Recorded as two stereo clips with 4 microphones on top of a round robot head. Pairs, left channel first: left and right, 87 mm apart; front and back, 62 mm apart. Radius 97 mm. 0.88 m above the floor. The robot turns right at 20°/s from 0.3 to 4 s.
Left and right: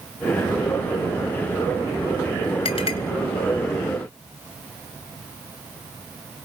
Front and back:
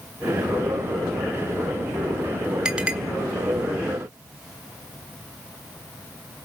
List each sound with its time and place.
2.6 s a clink: 100° left, 1.5 m; by 3.0 s 105° left, 1.5 m